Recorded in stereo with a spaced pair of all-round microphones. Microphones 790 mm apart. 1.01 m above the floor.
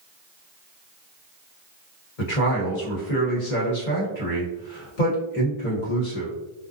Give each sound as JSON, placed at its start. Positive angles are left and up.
{"t": 2.2, "sound": "a man speaking", "side_deg": 70, "distance_m": 1.2}